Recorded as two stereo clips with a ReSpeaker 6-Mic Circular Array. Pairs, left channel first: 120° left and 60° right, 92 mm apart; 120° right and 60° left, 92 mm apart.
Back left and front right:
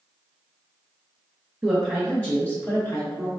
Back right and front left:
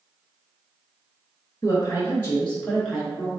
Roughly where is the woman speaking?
Behind right.